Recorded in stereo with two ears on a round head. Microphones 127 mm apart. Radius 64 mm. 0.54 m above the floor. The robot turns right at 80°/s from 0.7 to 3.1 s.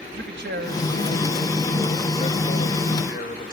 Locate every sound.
0.1 s a man speaking: 85° right, 2.5 m; by 3.5 s 110° left, 2.5 m